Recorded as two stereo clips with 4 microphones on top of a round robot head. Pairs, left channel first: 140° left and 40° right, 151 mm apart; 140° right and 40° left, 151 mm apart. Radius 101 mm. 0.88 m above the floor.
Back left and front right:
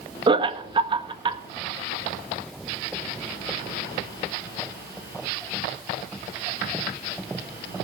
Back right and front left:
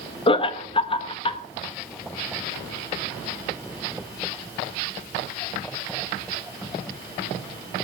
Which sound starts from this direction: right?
Laughter, at 0.3 s.